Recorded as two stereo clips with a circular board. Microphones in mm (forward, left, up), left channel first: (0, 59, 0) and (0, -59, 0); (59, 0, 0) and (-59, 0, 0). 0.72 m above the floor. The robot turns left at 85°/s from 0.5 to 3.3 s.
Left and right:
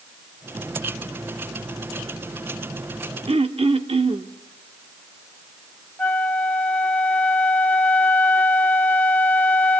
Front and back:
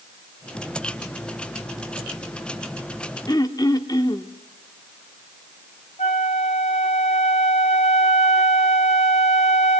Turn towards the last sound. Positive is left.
turn(degrees=15)